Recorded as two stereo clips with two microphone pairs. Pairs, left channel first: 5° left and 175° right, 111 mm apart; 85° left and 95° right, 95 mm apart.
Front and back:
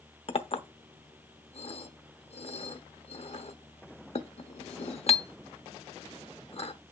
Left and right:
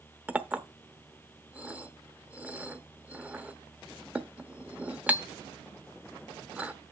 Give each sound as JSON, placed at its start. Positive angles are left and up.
{"t": 0.3, "sound": "a clink", "azimuth_deg": -25, "distance_m": 0.8}